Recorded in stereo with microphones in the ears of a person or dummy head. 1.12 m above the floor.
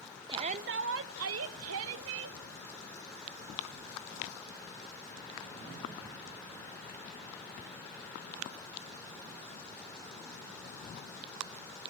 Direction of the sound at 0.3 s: 20° right (ahead or behind).